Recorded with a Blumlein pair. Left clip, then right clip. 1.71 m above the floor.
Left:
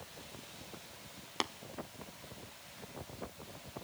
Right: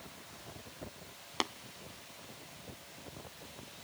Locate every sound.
1.4 s tapping: 5° right, 0.5 m